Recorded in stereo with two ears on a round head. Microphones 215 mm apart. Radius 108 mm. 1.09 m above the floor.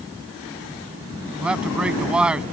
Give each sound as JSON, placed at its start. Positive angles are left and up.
{"t": 1.4, "sound": "a man speaking", "side_deg": -5}